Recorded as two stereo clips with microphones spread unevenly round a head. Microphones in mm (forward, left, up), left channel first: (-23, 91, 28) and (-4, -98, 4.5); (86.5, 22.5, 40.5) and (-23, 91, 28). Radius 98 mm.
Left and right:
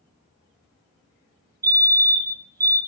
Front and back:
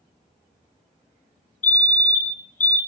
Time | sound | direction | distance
1.6 | a fire alarm | 15° right | 2.5 m